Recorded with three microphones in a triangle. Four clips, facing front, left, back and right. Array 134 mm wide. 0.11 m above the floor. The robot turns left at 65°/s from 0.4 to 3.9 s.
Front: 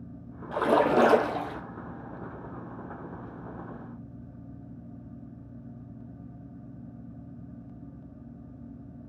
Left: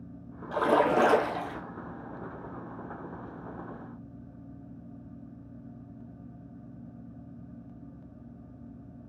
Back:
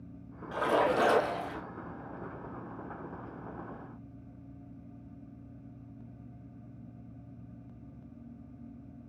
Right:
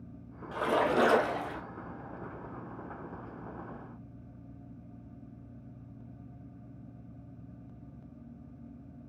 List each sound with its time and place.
0.5 s a splash: 40° left, 2.5 m; by 1.6 s 30° right, 2.5 m